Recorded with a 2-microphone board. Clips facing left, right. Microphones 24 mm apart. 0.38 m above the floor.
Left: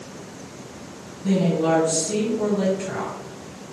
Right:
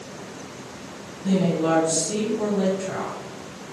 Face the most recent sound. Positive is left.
turn(degrees=30)  # may be behind; listen again after turning